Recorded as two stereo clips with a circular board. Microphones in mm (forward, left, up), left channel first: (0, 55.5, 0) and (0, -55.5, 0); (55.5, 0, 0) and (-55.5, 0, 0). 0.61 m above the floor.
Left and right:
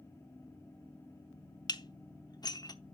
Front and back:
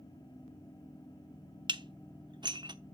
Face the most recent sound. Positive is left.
turn(degrees=140)